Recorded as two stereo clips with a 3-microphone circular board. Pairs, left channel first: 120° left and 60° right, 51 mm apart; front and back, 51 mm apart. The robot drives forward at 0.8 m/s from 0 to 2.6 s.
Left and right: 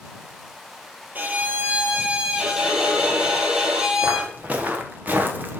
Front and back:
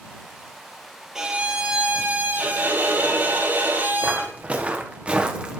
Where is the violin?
105° right, 2.0 m; by 4.3 s 135° right, 2.5 m.